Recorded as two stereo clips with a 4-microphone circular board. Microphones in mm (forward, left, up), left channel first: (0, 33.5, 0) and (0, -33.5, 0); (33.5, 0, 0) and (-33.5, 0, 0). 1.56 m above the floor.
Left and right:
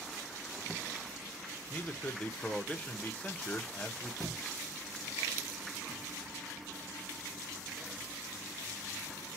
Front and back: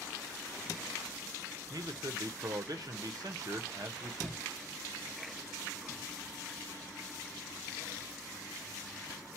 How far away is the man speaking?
About 0.9 m.